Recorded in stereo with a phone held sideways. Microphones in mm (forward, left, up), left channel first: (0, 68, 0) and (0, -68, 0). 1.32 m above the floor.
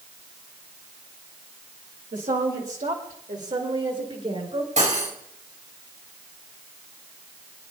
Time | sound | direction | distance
2.1 | a woman speaking | 80° right | 2 m
4.8 | cutlery clinking | 70° right (ahead or behind) | 4.5 m